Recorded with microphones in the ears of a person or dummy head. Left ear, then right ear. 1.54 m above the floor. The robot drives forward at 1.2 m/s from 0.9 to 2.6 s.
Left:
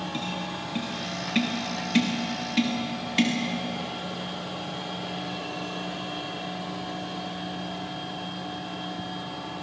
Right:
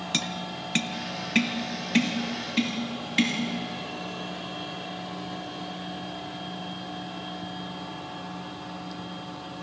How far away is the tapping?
About 0.9 m.